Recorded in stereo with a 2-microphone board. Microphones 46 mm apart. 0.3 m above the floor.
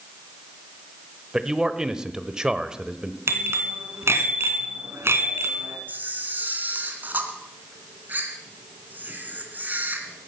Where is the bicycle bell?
65° right (ahead or behind), 2 m.